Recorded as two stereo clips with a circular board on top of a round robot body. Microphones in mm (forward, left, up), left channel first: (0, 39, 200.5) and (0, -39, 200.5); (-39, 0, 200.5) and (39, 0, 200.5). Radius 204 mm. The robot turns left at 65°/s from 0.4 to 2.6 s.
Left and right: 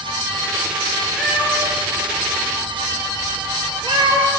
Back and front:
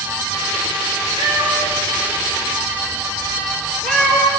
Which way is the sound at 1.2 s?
5° right.